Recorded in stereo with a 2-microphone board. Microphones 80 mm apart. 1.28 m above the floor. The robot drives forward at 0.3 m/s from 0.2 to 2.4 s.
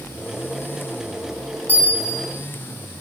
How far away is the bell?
About 0.7 m.